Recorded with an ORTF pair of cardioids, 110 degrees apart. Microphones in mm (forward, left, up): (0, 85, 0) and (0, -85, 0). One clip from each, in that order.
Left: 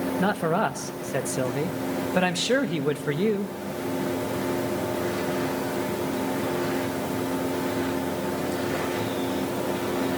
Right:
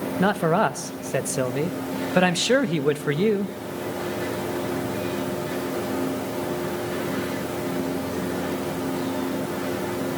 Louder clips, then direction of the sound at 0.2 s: Right 4 dB; 20° right.